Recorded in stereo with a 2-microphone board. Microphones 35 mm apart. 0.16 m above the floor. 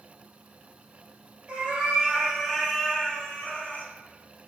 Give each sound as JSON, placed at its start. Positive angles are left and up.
{"t": 1.5, "sound": "a cat meowing", "side_deg": -35, "distance_m": 1.2}